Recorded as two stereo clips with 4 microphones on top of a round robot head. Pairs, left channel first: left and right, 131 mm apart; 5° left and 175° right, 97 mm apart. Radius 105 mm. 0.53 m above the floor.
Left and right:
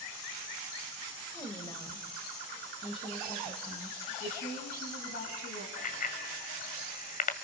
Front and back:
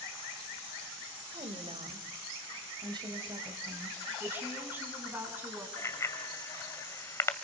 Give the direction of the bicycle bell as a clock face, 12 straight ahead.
10 o'clock.